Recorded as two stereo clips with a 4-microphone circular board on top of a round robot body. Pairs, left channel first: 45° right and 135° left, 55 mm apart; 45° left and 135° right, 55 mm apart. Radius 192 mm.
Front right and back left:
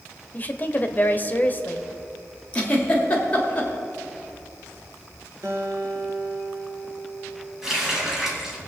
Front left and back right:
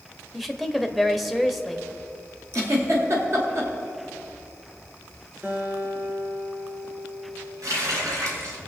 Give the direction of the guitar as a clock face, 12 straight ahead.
6 o'clock.